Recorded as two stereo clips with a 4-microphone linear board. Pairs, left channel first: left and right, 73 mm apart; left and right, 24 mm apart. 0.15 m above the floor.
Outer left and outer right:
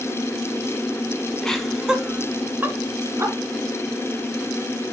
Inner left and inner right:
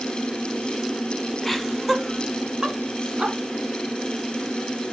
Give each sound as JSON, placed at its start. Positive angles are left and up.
{"t": 1.4, "sound": "laughter", "side_deg": 10, "distance_m": 1.0}